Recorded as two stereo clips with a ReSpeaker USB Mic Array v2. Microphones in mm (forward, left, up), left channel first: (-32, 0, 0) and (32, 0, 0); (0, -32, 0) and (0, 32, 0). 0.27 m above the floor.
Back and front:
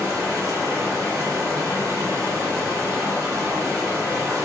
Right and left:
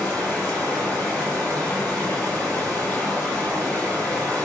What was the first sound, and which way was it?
Running water, 15° right.